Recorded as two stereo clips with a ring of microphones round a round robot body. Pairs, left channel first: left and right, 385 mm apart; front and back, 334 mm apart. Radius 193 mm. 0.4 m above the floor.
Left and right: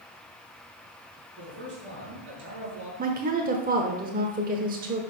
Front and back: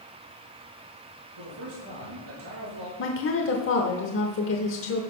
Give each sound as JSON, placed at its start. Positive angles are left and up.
{"t": 1.4, "sound": "a man speaking", "azimuth_deg": -150, "distance_m": 5.0}
{"t": 3.0, "sound": "a woman speaking", "azimuth_deg": -30, "distance_m": 1.0}